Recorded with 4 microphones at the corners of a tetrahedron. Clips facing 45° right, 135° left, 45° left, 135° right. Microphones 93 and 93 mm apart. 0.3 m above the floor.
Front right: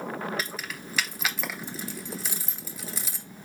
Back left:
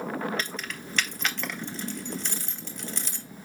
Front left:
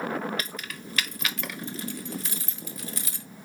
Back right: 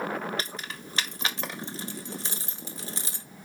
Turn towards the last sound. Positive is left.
turn(degrees=-120)